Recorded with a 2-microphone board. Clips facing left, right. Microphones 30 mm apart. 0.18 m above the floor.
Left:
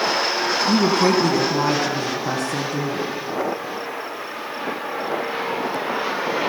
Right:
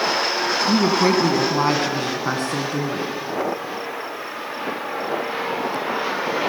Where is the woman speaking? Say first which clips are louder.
Even; 15° right (ahead or behind), 1.0 m; by 3.2 s 50° right (ahead or behind), 1.9 m.